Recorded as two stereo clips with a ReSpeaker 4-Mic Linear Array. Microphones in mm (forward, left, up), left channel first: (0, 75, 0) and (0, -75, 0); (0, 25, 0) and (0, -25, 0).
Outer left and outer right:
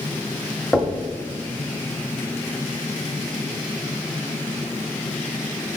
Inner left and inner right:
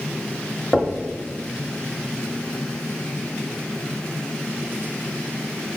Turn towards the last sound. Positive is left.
turn(degrees=0)  # may be behind; listen again after turning